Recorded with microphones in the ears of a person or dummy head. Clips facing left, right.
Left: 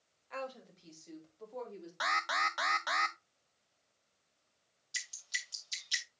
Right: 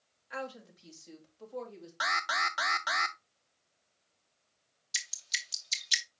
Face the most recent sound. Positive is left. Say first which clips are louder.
# right 2 dB
turn(degrees=-25)  # may be behind; listen again after turning